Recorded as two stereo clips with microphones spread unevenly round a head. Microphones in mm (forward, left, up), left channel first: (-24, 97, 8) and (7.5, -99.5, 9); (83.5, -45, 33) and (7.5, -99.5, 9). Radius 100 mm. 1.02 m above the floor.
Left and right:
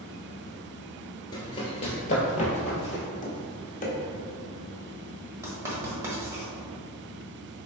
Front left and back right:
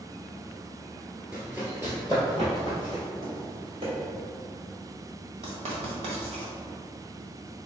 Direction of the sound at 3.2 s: 150° left.